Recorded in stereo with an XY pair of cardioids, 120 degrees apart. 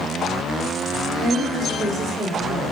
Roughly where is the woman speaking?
Ahead right.